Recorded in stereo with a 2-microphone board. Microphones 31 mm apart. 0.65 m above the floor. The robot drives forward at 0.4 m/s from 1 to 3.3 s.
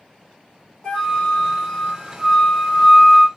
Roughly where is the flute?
Left.